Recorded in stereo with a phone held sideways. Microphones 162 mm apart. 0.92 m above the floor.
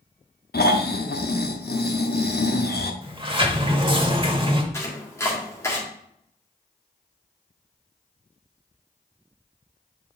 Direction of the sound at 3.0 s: 35° right (ahead or behind).